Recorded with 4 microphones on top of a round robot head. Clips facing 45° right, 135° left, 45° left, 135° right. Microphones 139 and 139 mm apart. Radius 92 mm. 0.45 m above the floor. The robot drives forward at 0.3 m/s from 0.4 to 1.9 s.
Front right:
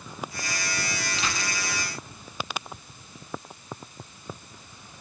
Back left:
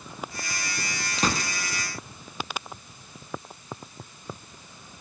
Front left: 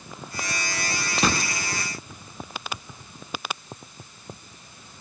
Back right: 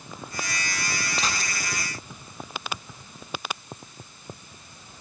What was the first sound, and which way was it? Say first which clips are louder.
A gunshot: back left 8 dB, front left 9 dB; 80° left.